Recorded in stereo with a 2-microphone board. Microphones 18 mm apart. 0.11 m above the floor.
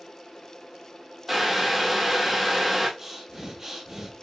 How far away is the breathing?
About 1.3 m.